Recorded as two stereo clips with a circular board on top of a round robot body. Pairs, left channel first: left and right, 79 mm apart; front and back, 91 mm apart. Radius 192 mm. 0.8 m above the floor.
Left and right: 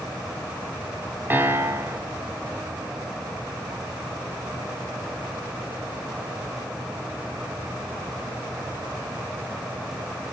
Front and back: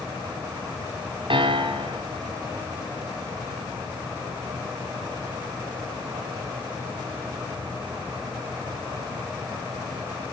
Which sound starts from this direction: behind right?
A piano, at 1.3 s.